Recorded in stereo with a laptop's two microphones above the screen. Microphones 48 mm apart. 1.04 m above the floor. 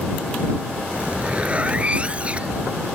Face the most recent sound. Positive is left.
turn(degrees=-30)  # may be behind; listen again after turning